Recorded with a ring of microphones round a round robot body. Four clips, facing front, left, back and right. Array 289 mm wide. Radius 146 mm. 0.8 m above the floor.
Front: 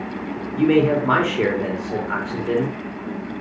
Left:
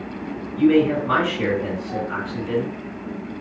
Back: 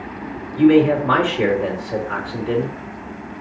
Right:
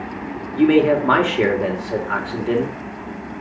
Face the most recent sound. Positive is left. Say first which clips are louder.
# right 2 dB, back 4 dB
turn(degrees=-70)